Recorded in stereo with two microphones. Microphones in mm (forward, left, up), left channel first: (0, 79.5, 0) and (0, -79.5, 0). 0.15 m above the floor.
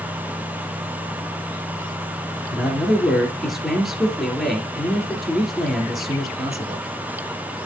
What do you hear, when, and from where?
2.5 s a man speaking: centre (ahead or behind), 3 m